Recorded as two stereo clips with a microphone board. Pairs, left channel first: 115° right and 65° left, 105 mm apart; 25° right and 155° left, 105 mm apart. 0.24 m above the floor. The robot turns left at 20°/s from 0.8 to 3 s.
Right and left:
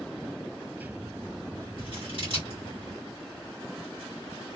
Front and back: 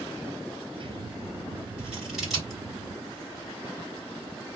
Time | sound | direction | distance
1.8 | scissors | 80° left | 2.5 m